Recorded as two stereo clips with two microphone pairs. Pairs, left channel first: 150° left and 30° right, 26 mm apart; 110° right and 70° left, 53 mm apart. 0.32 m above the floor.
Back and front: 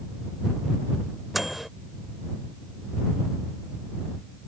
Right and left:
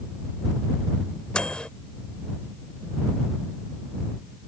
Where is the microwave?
95° right.